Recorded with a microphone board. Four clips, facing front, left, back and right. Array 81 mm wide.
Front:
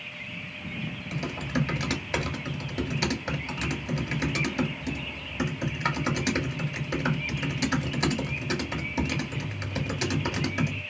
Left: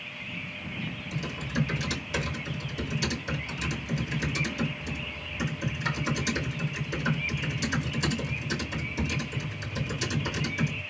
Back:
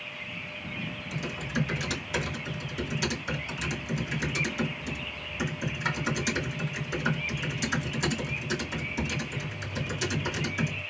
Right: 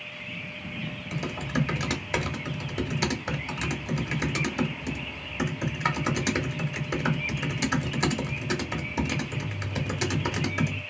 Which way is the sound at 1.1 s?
55° right.